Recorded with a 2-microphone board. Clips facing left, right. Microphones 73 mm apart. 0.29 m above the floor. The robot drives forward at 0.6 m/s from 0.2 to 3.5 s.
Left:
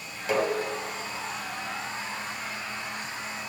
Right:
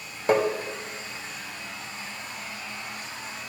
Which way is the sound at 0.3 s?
45° right (ahead or behind).